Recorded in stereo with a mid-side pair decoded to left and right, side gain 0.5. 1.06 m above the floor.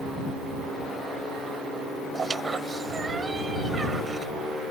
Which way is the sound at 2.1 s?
30° right.